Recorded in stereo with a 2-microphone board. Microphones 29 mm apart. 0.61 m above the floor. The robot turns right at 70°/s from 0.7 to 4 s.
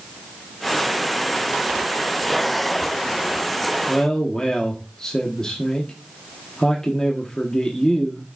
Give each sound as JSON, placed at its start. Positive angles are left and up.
{"t": 3.9, "sound": "a man speaking", "side_deg": 25, "distance_m": 1.1}